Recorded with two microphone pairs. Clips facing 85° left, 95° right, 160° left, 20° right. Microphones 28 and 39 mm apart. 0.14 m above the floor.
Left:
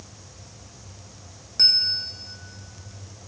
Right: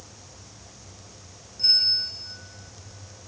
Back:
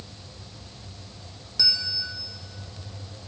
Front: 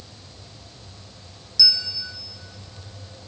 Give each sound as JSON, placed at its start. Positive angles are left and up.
{"t": 1.6, "sound": "a bell", "azimuth_deg": 100, "distance_m": 4.5}